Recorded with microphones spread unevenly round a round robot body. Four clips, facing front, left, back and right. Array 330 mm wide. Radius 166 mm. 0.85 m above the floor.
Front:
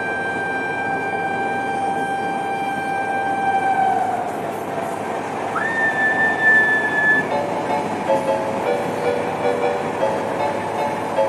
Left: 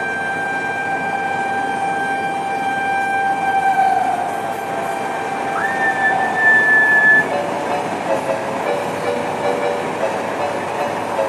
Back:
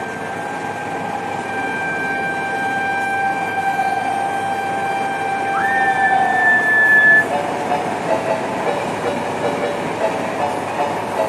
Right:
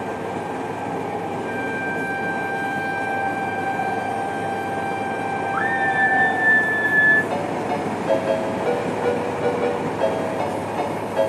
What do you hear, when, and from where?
5.5 s a scream: 50° right, 6.5 m; by 7.2 s 65° right, 6.5 m
7.3 s a ringtone: 45° right, 6 m